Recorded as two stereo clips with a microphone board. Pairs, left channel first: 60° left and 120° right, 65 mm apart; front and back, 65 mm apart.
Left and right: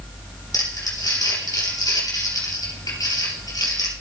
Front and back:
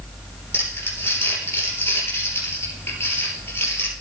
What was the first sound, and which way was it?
Crumpling, 50° left.